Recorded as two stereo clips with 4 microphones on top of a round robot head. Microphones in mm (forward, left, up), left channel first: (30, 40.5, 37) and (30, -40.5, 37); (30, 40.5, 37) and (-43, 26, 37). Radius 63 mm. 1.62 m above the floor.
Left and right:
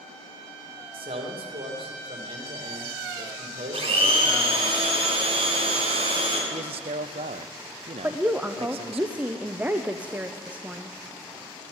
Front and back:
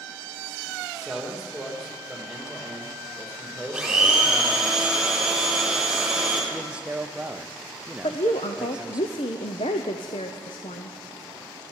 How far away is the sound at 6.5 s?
About 0.5 m.